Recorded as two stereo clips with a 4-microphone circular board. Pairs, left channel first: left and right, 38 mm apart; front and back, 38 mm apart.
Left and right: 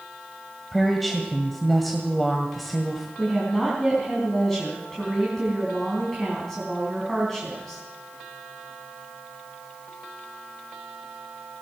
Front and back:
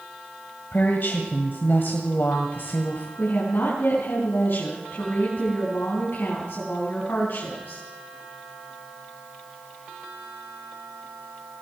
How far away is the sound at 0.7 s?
About 1.7 m.